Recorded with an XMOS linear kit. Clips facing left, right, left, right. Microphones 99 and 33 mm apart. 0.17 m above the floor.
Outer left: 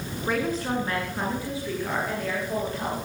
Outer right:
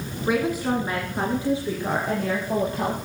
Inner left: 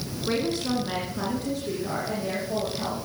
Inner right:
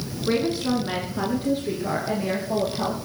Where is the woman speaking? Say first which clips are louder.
Outer right 4 dB, inner right 4 dB; 5° right (ahead or behind), 1.9 m; by 3.1 s 25° right (ahead or behind), 5 m.